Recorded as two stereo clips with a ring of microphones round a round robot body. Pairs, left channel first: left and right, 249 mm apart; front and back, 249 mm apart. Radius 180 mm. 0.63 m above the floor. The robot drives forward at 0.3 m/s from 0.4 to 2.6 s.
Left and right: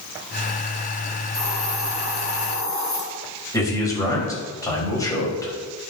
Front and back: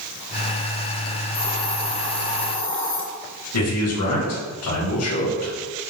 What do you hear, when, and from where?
1.3 s a hiss: 35° left, 4 m; by 3.0 s 40° left, 4 m
3.5 s a man speaking: 15° left, 4 m